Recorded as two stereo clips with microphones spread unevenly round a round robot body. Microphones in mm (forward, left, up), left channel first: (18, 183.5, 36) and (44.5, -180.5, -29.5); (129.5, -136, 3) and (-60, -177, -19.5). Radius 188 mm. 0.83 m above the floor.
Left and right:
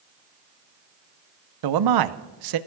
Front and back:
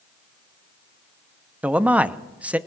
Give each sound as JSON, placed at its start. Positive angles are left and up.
{"t": 1.6, "sound": "a man speaking", "azimuth_deg": -85, "distance_m": 0.9}